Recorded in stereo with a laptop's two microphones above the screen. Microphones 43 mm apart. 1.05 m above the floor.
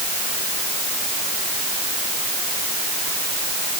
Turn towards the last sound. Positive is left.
No sound to turn to.